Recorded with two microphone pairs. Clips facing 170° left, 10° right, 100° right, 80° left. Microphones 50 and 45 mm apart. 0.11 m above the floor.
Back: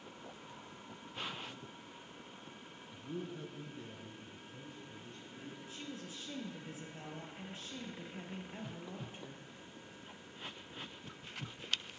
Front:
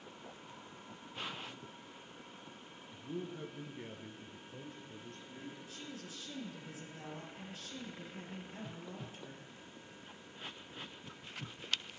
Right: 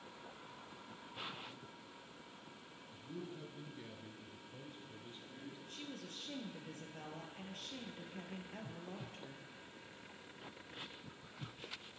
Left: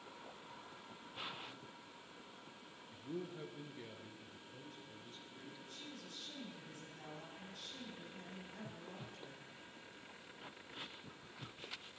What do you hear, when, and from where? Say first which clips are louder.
2.9 s a man speaking: front 1 dB, left 3 dB; 75° left, 1.7 m; by 5.6 s 35° right, 3 m
5.7 s a woman speaking: back 1 dB, right 3 dB; 130° right, 3 m